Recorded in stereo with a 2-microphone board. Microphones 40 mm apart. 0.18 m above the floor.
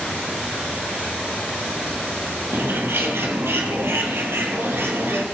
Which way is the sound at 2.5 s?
75° right (ahead or behind).